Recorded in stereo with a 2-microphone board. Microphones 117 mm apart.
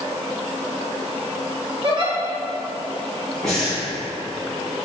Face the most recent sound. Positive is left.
turn(degrees=5)  # may be behind; listen again after turning